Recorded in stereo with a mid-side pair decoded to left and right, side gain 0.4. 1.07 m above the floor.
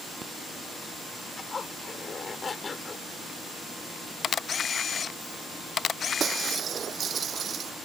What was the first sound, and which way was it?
A zipper, 40° left.